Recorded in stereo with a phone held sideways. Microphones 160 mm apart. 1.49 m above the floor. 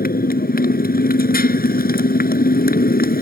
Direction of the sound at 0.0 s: 70° left (ahead or behind).